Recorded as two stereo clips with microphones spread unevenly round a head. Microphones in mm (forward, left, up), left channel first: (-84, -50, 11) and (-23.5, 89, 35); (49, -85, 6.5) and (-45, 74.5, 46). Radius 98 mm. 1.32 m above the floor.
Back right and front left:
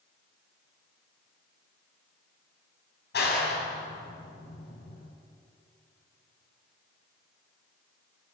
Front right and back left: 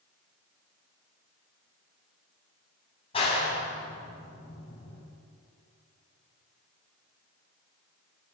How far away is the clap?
About 7 m.